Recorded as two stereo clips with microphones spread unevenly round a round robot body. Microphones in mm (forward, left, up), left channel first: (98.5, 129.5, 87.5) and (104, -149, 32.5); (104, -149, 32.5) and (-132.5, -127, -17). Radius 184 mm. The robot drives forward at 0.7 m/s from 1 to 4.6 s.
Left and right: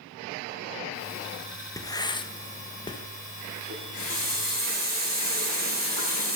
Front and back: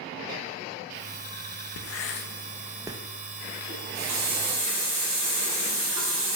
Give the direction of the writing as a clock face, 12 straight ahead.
12 o'clock.